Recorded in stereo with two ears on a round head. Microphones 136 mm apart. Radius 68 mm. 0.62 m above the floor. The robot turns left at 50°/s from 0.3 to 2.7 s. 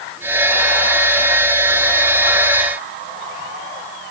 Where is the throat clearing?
I don't hear throat clearing.